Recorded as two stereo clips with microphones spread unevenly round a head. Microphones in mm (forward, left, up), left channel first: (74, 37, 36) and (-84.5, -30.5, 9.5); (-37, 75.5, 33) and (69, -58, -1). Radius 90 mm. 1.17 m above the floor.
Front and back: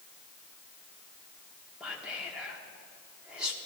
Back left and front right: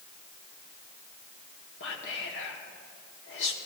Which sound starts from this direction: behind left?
Whispering, at 1.8 s.